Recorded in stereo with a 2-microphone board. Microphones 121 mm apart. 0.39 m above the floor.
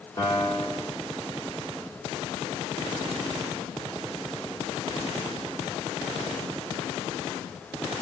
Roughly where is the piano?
Left.